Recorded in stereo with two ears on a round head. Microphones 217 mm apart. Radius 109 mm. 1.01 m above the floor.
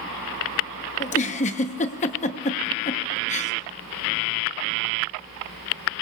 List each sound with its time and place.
1.0 s a giggle: 30° left (ahead or behind), 0.8 m